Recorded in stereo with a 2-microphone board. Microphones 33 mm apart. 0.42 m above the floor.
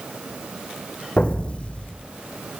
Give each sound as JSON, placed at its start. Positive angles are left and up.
{"t": 1.2, "sound": "an explosion", "side_deg": 40, "distance_m": 1.8}